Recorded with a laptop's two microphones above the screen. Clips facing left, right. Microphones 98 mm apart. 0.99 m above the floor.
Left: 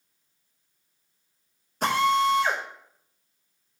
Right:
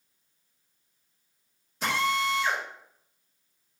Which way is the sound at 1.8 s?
50° left (ahead or behind).